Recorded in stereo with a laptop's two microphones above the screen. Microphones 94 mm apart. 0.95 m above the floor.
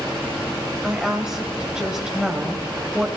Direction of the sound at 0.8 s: 10° right (ahead or behind).